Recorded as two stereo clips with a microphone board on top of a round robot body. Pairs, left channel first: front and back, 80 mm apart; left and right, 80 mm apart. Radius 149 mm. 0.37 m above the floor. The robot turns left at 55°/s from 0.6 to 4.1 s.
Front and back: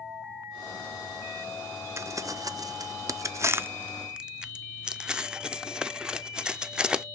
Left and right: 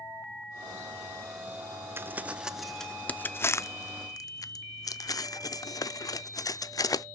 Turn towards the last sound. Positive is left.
turn(degrees=105)